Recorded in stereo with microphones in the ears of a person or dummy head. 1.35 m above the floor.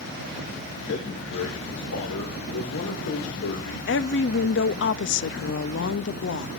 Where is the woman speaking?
65° left (ahead or behind), 0.7 m.